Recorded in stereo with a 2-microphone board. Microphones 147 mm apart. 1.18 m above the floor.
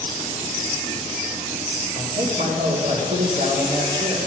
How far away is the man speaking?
About 2 m.